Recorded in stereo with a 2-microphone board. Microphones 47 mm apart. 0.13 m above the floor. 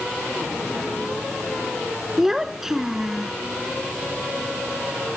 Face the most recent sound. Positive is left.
turn(degrees=-10)  # may be behind; listen again after turning